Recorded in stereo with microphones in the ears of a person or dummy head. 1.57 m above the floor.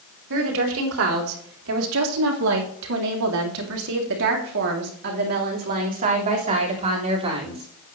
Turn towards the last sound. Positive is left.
turn(degrees=-30)  # may be behind; listen again after turning